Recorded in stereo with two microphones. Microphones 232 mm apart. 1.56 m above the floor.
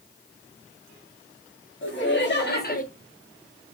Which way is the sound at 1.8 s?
55° left (ahead or behind).